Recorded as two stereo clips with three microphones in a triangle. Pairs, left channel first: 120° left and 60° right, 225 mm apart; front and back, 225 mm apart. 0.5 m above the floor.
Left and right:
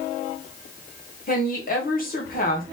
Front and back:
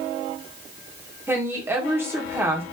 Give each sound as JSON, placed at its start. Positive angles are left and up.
{"t": 1.3, "sound": "a woman speaking", "azimuth_deg": 105, "distance_m": 1.5}